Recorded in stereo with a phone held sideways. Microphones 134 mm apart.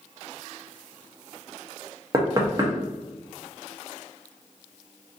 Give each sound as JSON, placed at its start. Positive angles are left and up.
{"t": 2.1, "sound": "knocking", "side_deg": -25, "distance_m": 0.8}